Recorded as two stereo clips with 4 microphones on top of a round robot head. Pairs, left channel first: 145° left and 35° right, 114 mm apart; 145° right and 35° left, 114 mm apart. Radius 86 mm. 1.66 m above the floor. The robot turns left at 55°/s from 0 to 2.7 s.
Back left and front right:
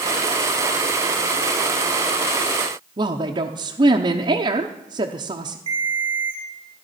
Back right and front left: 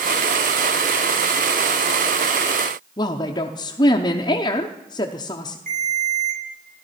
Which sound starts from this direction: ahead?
A ringtone, at 5.7 s.